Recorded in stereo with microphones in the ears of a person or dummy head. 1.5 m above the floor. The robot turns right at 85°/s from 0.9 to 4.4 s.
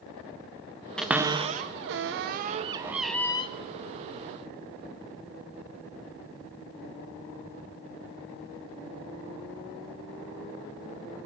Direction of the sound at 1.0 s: 5° left (ahead or behind).